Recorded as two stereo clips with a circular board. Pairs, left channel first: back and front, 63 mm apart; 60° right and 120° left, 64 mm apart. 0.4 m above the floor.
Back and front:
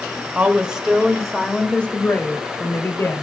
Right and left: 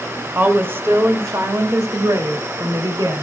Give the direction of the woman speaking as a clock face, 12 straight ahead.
10 o'clock.